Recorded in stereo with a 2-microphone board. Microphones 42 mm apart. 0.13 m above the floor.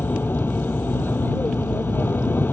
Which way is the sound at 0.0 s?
60° left (ahead or behind).